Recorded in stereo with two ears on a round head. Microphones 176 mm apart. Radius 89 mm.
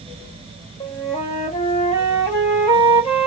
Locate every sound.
0.8 s a flute: 40° left (ahead or behind), 1.6 m